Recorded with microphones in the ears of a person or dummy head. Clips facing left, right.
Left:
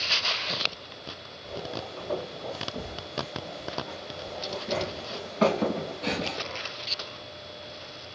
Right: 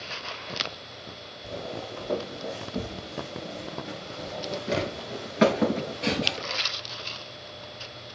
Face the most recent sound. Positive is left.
turn(degrees=-15)  # may be behind; listen again after turning